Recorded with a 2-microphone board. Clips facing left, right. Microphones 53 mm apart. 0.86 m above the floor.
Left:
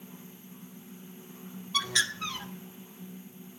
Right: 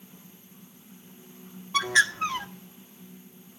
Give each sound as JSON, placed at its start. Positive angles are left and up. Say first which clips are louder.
{"t": 1.7, "sound": "a bird", "louder": "right 8 dB", "side_deg": -40, "distance_m": 1.2}